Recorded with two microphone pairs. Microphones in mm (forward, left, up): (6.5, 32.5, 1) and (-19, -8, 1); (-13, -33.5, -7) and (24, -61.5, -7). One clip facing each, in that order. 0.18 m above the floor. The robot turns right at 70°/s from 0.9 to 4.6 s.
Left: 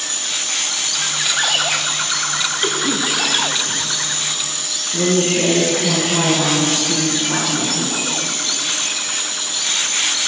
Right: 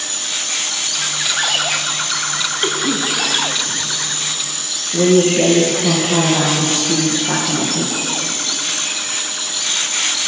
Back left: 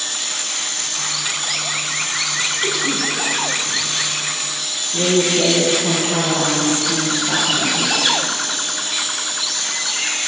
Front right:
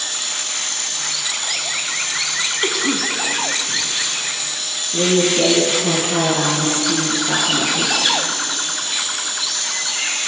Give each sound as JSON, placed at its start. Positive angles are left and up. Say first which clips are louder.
{"t": 2.6, "sound": "a cough", "louder": "right 2 dB, front right 2 dB", "azimuth_deg": -65, "distance_m": 1.1}
{"t": 4.9, "sound": "a woman speaking", "louder": "right 5 dB, front right 1 dB", "azimuth_deg": -95, "distance_m": 2.5}